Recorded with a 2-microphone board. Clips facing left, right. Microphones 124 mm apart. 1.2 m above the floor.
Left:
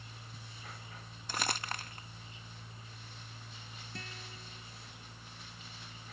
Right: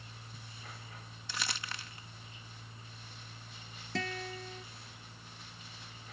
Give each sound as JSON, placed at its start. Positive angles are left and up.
{"t": 1.3, "sound": "crumpling", "side_deg": 45}
{"t": 4.0, "sound": "a guitar", "side_deg": -85}